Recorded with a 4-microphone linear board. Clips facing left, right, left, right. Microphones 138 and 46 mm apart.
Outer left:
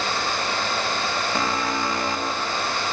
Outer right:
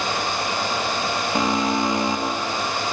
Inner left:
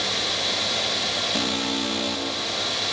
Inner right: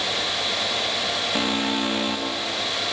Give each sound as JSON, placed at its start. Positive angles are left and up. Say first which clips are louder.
{"t": 1.4, "sound": "an alarm", "louder": "outer right 7 dB, inner right 2 dB", "side_deg": -20, "distance_m": 2.0}